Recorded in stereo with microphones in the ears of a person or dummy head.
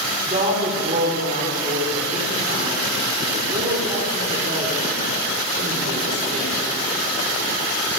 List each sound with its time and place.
0.2 s a woman speaking: 40° right (ahead or behind), 4.5 m